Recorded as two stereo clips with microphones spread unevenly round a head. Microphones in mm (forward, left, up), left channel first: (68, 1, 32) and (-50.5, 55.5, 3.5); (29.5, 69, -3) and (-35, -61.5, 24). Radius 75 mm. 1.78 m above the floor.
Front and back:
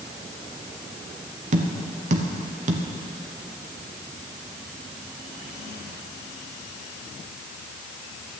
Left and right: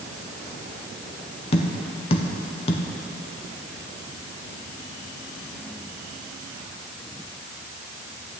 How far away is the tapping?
About 1.1 m.